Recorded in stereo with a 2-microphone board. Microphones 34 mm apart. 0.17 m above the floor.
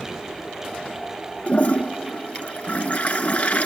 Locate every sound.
1.5 s a toilet flushing: 50° left (ahead or behind), 0.7 m